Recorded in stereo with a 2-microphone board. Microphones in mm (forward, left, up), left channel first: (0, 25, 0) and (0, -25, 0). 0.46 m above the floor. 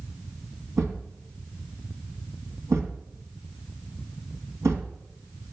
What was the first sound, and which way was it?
A thud, 75° right (ahead or behind).